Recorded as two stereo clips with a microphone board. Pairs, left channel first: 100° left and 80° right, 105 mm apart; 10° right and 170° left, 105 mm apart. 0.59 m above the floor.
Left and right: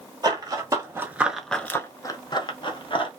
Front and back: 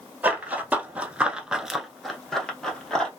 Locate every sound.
0.2 s running footsteps: 120° right, 0.9 m; by 3.1 s 70° left, 1.0 m